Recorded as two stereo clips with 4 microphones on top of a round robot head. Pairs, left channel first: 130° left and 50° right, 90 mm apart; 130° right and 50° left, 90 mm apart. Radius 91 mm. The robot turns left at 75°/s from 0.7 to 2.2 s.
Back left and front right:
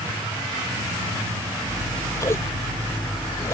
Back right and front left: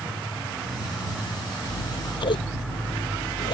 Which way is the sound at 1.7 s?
125° right.